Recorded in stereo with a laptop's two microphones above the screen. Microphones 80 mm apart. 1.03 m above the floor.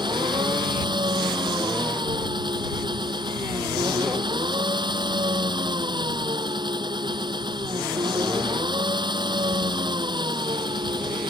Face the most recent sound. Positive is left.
turn(degrees=-70)  # may be behind; listen again after turning